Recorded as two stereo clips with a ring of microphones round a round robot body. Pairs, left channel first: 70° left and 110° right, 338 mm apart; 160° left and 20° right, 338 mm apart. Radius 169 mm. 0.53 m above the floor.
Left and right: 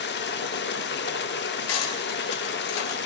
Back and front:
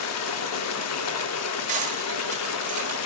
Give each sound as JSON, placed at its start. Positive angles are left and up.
{"t": 0.0, "sound": "running water", "azimuth_deg": 120, "distance_m": 0.7}
{"t": 1.7, "sound": "cutlery clinking", "azimuth_deg": 45, "distance_m": 1.3}